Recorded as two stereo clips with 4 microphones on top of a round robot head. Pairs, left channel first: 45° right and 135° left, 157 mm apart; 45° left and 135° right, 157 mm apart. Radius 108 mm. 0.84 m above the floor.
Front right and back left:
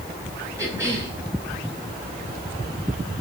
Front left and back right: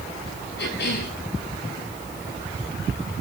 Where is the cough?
65° left, 9 m.